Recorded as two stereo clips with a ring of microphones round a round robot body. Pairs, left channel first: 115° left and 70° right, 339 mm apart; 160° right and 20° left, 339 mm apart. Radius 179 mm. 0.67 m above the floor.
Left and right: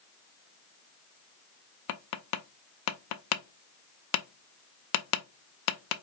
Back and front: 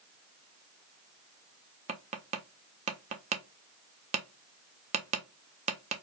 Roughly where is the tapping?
Left.